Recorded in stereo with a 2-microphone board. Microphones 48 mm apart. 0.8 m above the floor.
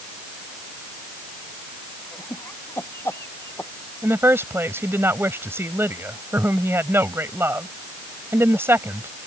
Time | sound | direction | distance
2.1 | laughter | 60° left (ahead or behind) | ?
4.0 | a woman speaking | 60° right (ahead or behind) | ?